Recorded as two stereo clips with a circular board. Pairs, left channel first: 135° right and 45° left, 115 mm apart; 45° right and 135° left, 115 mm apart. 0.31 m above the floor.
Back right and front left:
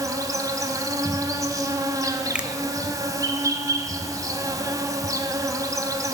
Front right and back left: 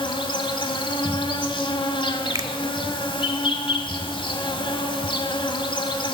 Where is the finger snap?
115° left, 0.7 m.